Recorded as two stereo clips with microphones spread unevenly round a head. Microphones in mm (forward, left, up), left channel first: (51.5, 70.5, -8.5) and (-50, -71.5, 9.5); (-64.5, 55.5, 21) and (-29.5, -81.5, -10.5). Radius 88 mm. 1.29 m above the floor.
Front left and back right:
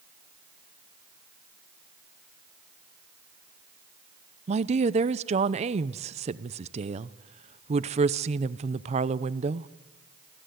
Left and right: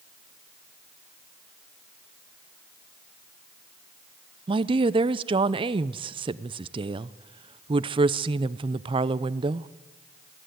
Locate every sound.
4.5 s a woman speaking: 80° right, 0.6 m